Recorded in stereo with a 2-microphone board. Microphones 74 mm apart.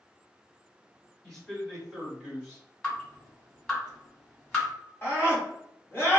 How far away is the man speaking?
About 1.8 m.